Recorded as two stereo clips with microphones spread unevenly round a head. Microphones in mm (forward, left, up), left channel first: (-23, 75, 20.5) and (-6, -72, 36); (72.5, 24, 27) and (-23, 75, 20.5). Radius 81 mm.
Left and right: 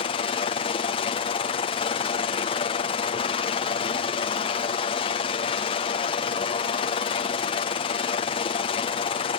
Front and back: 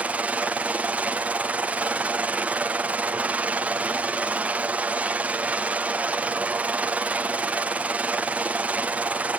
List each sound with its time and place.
0.0 s a helicopter: 85° left